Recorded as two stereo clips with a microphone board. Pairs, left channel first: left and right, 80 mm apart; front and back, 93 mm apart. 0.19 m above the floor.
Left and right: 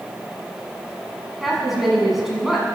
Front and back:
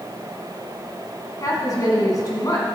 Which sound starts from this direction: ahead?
A woman speaking, at 1.4 s.